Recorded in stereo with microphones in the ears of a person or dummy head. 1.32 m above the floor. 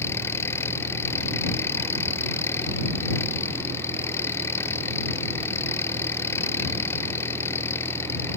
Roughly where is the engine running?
Centre.